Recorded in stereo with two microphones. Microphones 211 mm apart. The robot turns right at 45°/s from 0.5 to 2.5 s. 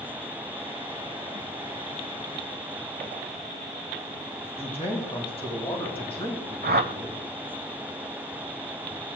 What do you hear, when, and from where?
4.6 s a man speaking: 25° left (ahead or behind), 2 m
6.6 s a whoosh: 50° right (ahead or behind), 0.6 m